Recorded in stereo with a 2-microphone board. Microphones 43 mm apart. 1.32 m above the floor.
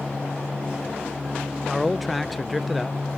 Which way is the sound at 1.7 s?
Centre (ahead or behind).